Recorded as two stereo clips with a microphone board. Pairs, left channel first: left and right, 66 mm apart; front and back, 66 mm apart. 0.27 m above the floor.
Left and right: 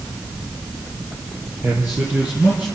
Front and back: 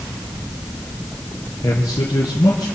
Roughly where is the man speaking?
Ahead right.